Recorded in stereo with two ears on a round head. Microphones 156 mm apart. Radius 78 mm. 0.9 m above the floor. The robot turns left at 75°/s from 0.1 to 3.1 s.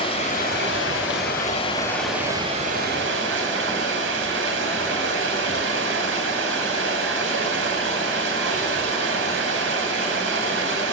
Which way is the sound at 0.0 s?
150° left.